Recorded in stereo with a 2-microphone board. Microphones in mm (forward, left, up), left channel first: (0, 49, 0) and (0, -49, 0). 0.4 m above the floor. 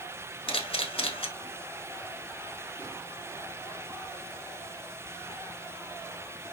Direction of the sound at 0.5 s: 70° left (ahead or behind).